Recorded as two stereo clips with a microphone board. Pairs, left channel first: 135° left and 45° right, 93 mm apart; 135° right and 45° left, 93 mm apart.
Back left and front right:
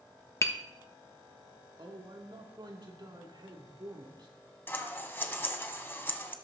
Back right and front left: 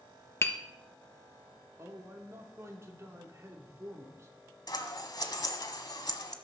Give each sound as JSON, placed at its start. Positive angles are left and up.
{"t": 0.4, "sound": "tapping", "azimuth_deg": 180, "distance_m": 1.1}
{"t": 1.8, "sound": "a man speaking", "azimuth_deg": -10, "distance_m": 2.5}
{"t": 4.7, "sound": "scissors", "azimuth_deg": -165, "distance_m": 1.4}